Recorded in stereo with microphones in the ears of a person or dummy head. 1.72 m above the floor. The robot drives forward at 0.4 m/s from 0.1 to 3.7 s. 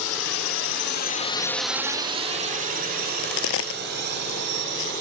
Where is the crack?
75° left (ahead or behind); by 4.9 s 70° left (ahead or behind).